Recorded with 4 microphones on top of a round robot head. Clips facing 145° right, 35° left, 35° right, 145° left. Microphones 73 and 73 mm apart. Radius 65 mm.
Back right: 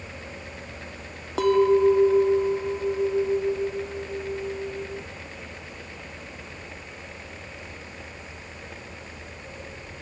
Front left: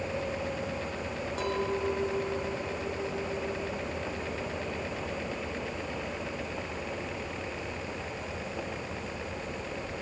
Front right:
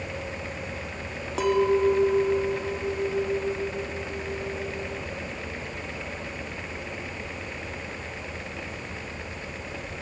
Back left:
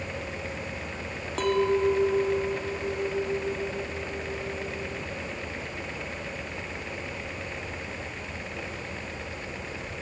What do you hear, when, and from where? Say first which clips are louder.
1.4 s a clink: back right 14 dB, front right 2 dB; 120° right